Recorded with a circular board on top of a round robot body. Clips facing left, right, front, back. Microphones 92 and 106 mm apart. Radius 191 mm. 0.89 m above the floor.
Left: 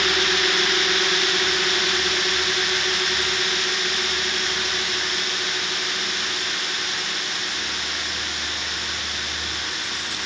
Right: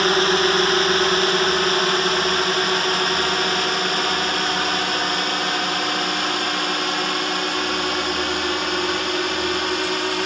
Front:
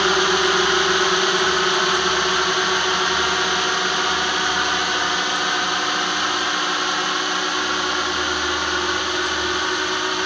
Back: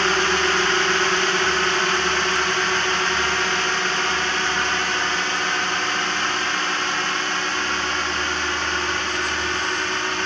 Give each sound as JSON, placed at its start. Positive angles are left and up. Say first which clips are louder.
{"t": 0.0, "sound": "a drone", "louder": "right 6 dB, front 2 dB", "azimuth_deg": -70}